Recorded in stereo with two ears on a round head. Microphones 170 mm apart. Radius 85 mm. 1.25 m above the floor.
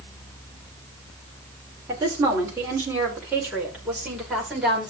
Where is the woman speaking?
15° right (ahead or behind), 5.5 m; by 4.9 s centre (ahead or behind), 6 m.